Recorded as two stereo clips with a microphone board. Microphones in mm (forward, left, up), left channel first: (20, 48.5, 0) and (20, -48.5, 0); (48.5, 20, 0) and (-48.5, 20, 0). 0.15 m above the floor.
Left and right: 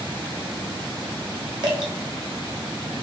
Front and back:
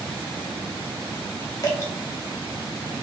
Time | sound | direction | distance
1.6 | dripping | 55° right | 1.1 m